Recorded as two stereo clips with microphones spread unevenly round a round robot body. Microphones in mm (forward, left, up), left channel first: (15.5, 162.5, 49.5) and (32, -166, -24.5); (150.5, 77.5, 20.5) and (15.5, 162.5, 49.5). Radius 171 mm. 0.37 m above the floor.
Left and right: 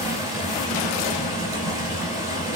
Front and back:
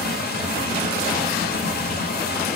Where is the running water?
5° right, 0.8 m.